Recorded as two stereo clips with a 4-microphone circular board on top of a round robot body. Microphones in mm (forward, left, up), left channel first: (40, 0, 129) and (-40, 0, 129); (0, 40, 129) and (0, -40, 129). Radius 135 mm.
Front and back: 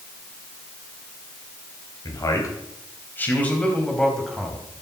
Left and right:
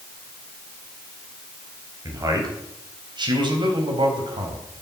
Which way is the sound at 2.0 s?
40° right.